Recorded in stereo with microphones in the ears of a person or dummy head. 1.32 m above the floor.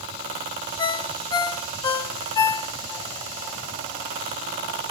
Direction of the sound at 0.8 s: 25° left (ahead or behind).